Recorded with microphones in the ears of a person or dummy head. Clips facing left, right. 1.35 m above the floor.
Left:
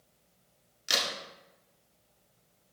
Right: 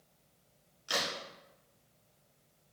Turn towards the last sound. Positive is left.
turn(degrees=30)  # may be behind; listen again after turning